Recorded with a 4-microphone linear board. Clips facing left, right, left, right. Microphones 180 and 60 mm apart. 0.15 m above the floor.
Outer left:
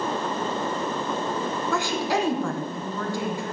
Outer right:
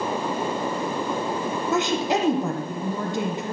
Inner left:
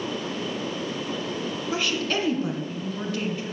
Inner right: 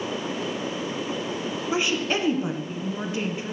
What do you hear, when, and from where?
1.7 s a woman speaking: 20° right (ahead or behind), 1.5 m